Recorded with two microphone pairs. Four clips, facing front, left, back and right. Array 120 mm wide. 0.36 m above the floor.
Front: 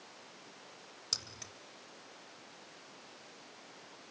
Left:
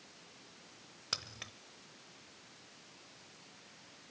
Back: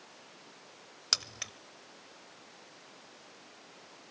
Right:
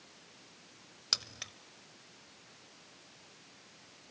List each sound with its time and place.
1.1 s keys jangling: 175° right, 0.8 m